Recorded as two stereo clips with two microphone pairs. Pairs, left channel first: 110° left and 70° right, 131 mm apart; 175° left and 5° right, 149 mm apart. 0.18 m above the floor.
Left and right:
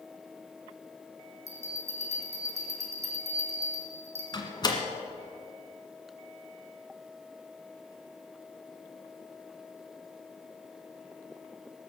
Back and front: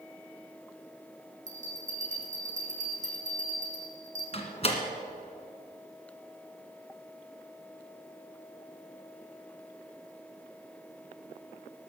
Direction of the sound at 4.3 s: 155° left.